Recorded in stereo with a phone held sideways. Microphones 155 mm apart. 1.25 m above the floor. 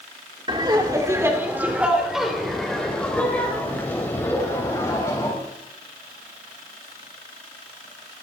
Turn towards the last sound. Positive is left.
turn(degrees=20)  # may be behind; listen again after turning